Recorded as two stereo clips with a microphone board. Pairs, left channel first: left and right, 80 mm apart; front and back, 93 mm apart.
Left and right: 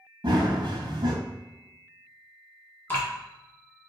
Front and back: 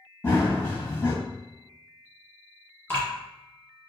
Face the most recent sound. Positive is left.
turn(degrees=45)